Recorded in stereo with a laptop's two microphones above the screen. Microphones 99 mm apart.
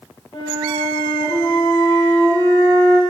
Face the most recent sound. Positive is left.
turn(degrees=60)  # may be behind; listen again after turning